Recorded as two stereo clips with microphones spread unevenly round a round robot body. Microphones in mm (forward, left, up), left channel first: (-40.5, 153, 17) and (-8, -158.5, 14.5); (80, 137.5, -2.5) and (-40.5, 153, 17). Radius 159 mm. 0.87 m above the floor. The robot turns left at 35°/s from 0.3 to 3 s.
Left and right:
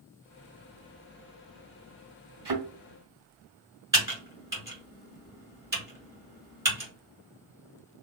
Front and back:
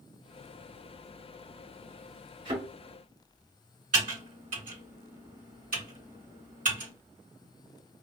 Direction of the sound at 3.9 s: 165° right.